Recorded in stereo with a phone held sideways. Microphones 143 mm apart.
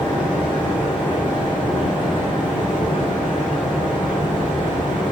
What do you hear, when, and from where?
0.0 s a fan: 35° left (ahead or behind), 3.5 m